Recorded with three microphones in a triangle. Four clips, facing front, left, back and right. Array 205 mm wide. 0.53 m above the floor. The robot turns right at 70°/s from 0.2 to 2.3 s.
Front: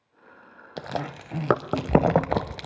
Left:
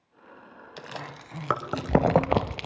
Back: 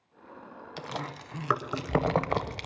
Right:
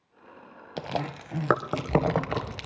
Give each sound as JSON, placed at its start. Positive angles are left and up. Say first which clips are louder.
{"t": 0.8, "sound": "chewing", "louder": "right 8 dB, front 6 dB", "azimuth_deg": -60, "distance_m": 0.5}